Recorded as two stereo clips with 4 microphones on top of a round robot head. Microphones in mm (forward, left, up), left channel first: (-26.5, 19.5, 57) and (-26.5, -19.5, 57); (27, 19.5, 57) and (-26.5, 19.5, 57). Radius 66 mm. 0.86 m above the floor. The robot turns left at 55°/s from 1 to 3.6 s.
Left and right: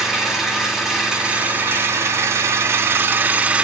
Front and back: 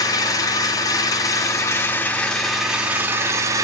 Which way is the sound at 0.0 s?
5° right.